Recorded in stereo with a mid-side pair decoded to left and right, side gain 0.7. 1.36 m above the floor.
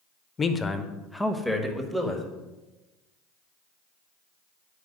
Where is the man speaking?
25° left, 0.8 m; by 2.2 s 10° right, 1.8 m.